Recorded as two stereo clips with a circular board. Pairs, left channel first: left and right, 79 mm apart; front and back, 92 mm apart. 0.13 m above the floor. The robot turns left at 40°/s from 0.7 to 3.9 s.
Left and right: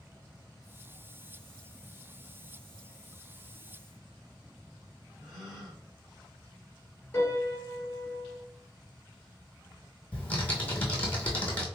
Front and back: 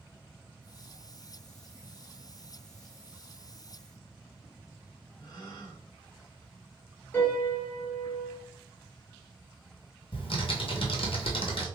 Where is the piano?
50° left, 1.6 m.